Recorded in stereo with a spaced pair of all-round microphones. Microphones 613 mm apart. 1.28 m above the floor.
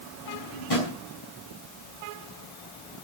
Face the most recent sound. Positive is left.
turn(degrees=65)  # may be behind; listen again after turning